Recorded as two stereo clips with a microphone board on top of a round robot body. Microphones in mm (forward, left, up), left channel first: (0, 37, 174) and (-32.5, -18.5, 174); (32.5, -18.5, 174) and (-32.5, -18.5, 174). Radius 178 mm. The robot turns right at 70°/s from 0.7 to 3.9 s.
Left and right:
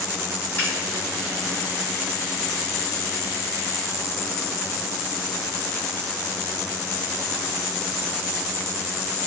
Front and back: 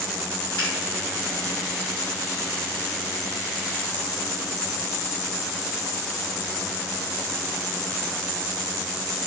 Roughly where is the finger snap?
Ahead.